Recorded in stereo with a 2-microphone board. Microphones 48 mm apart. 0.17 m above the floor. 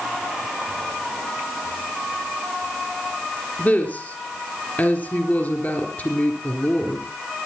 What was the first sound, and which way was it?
A woman speaking, 35° left (ahead or behind).